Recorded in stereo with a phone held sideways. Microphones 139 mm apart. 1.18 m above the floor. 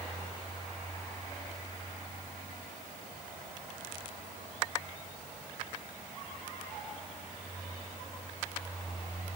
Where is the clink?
No clink in this recording.